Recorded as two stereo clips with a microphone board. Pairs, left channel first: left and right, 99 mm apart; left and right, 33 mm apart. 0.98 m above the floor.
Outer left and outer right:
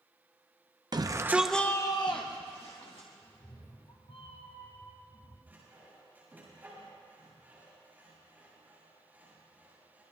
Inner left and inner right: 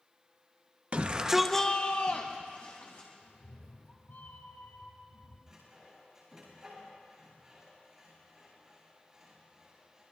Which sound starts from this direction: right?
A shout, at 0.9 s.